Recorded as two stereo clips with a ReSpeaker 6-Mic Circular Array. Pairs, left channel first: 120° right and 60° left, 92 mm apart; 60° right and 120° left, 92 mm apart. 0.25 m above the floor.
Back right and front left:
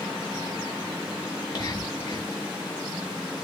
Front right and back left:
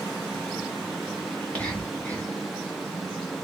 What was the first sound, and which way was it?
Whispering, 130° right.